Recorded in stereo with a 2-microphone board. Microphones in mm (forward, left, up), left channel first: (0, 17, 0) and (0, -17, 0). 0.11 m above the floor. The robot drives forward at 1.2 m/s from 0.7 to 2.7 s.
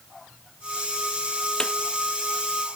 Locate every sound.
1.6 s a snare drum: 25° left (ahead or behind)